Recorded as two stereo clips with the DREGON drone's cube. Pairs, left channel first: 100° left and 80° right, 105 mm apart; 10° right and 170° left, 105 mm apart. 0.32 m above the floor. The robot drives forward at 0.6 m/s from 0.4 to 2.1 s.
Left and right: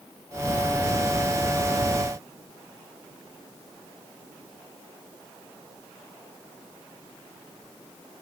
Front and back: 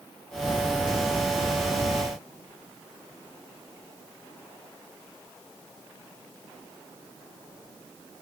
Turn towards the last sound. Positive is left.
No sound to turn to.